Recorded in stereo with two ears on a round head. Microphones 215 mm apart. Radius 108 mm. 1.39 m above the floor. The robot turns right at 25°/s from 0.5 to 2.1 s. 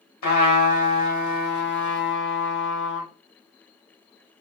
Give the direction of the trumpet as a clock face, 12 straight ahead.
9 o'clock.